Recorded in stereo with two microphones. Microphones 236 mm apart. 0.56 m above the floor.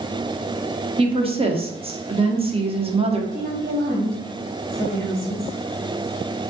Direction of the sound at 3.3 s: 35° right (ahead or behind).